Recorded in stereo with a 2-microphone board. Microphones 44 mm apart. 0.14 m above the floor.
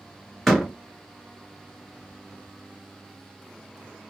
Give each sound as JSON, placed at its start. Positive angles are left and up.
{"t": 0.5, "sound": "a door slam", "side_deg": 0, "distance_m": 1.5}